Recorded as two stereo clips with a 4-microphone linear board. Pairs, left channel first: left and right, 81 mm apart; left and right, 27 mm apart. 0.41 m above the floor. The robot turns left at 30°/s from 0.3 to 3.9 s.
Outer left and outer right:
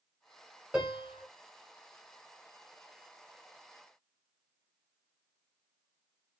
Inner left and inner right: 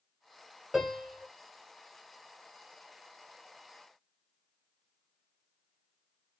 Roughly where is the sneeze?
I don't hear a sneeze.